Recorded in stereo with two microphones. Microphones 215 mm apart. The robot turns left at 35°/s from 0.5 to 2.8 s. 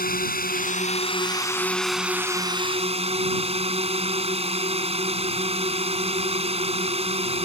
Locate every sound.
0.0 s a drone: 50° left; by 7.5 s 30° right